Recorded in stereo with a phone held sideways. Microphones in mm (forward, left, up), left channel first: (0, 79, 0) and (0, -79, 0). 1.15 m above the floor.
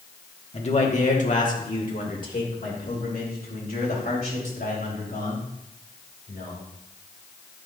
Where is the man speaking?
40° left (ahead or behind), 1.1 m; by 6.7 s 75° left (ahead or behind), 4 m.